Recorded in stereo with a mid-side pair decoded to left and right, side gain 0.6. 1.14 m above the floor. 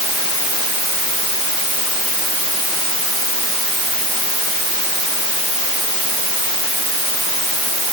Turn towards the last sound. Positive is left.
No sound to turn to.